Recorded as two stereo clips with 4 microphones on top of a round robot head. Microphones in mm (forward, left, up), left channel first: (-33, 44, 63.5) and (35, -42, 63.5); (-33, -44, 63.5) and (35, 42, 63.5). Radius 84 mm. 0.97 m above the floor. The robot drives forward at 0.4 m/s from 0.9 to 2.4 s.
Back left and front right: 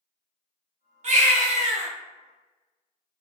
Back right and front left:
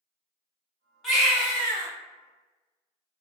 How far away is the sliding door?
I don't hear a sliding door.